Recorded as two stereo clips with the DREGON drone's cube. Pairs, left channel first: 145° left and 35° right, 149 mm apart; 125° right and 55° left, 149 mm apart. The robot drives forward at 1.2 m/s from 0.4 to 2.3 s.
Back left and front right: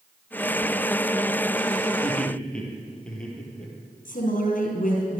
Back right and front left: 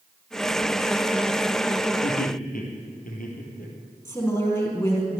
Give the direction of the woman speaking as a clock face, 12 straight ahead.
6 o'clock.